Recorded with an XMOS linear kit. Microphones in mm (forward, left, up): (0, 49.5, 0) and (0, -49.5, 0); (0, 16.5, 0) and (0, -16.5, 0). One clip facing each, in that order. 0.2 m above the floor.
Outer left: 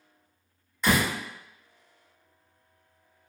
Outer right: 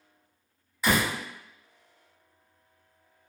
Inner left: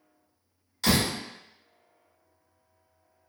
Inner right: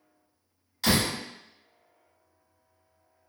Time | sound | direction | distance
0.8 | a door slam | 5° right (ahead or behind) | 1.1 m